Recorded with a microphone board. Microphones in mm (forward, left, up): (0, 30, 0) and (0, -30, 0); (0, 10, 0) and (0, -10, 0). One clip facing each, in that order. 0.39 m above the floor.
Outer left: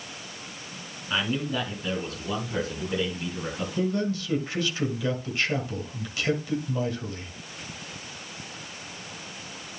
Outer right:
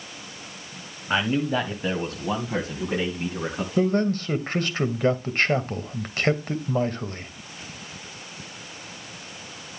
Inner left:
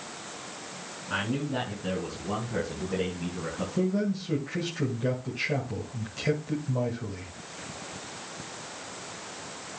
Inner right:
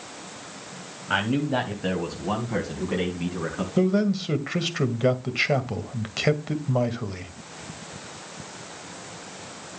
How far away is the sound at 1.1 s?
About 2.5 m.